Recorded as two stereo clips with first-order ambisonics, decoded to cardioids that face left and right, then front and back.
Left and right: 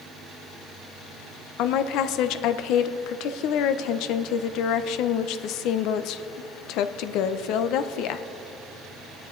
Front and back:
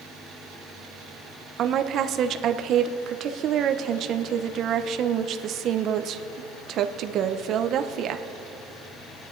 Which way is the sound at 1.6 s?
125° left.